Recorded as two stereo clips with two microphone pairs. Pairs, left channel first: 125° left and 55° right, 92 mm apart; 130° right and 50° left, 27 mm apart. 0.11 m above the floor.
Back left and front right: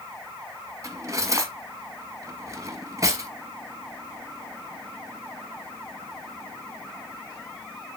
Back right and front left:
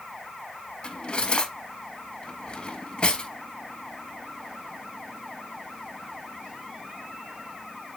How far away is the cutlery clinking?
About 1.3 m.